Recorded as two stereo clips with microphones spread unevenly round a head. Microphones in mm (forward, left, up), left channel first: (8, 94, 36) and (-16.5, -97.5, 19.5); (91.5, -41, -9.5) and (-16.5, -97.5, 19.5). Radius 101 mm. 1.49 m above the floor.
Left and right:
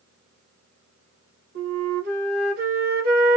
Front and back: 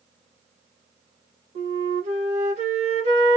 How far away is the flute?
About 1.3 m.